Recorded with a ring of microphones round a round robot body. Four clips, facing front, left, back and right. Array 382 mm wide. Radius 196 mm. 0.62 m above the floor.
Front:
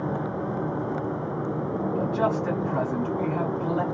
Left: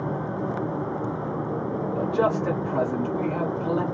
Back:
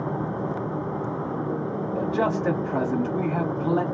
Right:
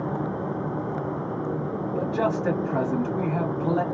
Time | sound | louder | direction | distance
1.9 | a man speaking | left 2 dB, back 1 dB | 160° right | 1.6 m